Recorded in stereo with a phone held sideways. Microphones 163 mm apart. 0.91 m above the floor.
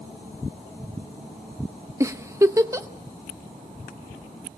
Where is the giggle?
20° right (ahead or behind), 0.8 m.